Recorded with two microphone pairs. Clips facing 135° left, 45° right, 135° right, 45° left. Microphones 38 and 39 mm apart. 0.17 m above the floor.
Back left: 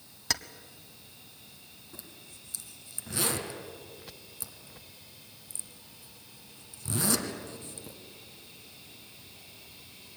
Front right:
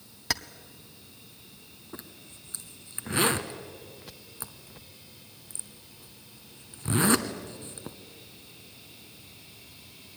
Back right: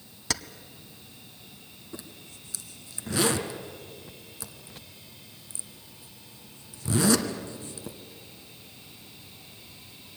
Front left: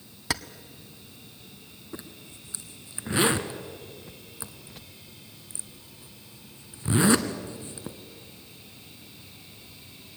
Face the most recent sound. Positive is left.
turn(degrees=-5)